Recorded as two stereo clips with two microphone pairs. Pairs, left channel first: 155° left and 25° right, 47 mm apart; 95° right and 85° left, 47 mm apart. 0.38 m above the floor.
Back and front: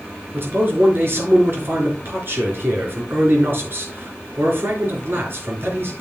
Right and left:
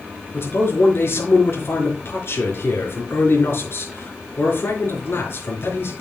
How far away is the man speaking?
About 4.5 m.